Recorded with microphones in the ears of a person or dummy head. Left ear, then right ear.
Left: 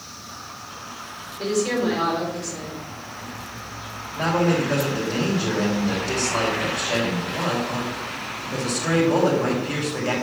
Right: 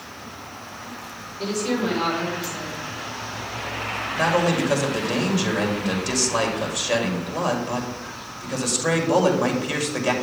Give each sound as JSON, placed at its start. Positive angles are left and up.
{"t": 1.4, "sound": "a woman speaking", "side_deg": 20, "distance_m": 5.5}
{"t": 4.2, "sound": "a man speaking", "side_deg": -70, "distance_m": 3.5}